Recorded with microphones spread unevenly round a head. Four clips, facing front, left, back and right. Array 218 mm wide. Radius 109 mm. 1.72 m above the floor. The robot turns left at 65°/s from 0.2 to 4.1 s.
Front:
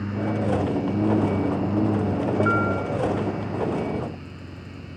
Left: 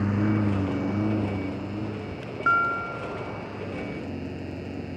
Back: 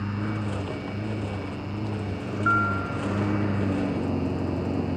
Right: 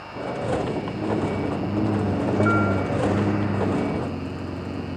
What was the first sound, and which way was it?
A lawn mower, 70° left.